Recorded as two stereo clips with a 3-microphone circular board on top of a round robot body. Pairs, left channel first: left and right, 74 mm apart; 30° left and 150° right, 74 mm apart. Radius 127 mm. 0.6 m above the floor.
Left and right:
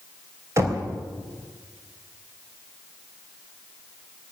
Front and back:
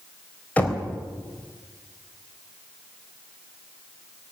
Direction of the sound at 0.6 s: 40° right.